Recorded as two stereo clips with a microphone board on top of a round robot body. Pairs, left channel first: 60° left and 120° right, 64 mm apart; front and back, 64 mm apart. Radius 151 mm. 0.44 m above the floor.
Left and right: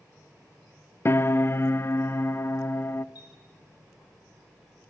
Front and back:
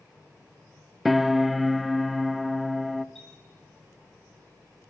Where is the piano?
90° left, 0.6 m.